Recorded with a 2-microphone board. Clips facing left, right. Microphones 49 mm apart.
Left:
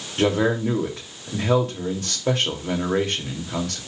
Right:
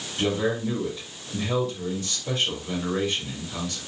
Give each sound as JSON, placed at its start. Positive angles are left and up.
{"t": 0.2, "sound": "a man speaking", "side_deg": 75, "distance_m": 2.5}